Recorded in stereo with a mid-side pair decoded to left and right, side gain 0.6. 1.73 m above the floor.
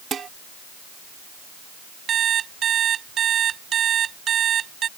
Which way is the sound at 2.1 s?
45° right.